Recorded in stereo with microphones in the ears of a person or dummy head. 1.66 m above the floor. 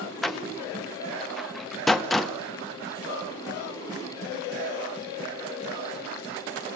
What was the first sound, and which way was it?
A door slam, centre (ahead or behind).